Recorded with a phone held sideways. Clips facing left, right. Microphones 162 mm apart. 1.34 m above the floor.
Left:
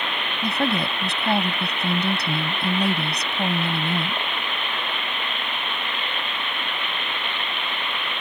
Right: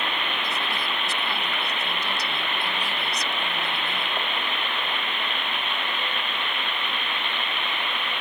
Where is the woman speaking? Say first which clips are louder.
Left 7 dB; 55° left (ahead or behind).